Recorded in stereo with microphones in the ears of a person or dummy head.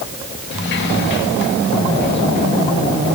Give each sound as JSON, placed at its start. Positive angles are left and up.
{"t": 0.5, "sound": "a sliding door", "side_deg": 60, "distance_m": 2.5}